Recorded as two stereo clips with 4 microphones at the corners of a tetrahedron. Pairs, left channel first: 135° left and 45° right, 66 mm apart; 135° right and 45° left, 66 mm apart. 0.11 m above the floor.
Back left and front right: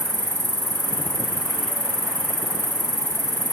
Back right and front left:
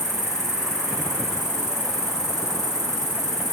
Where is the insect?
125° left, 5 m.